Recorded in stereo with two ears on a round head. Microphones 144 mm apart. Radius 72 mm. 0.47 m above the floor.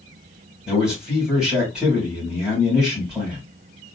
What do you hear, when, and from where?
0.7 s a man speaking: 5° right (ahead or behind), 3 m